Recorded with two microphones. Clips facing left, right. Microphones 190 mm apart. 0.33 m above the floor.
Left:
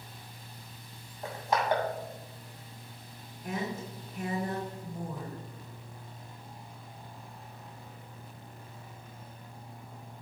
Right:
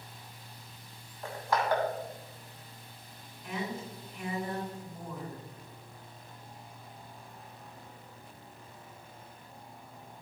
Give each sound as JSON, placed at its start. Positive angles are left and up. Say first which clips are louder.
{"t": 1.2, "sound": "crushing", "louder": "left 1 dB", "side_deg": 20, "distance_m": 2.5}
{"t": 3.4, "sound": "a woman speaking", "louder": "left 2 dB", "side_deg": 40, "distance_m": 2.5}